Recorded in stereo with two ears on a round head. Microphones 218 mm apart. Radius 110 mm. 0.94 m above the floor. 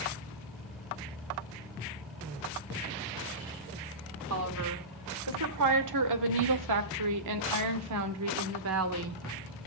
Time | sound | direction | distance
4.3 | a woman speaking | 70° right (ahead or behind) | 3 m